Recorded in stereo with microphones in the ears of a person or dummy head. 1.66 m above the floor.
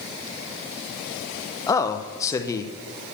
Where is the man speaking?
20° left (ahead or behind), 0.8 m.